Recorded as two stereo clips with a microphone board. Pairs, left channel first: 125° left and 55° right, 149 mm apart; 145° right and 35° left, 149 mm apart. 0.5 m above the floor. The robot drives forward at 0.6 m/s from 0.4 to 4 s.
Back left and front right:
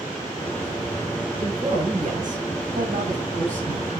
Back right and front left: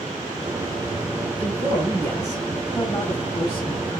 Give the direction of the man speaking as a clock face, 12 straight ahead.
2 o'clock.